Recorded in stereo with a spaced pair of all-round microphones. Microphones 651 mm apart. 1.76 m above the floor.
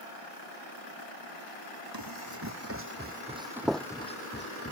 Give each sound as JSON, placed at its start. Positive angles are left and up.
{"t": 1.9, "sound": "running footsteps", "side_deg": -30}